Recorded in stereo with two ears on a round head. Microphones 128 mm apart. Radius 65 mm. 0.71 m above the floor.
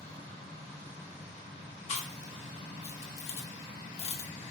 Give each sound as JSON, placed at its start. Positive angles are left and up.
{"t": 1.9, "sound": "chewing", "side_deg": 45, "distance_m": 0.6}